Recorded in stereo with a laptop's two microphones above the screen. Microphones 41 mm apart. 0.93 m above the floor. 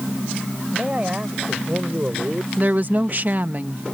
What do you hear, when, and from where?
0.7 s a man speaking: 25° right (ahead or behind); by 2.5 s 50° right (ahead or behind)
2.6 s a woman speaking: 45° right (ahead or behind)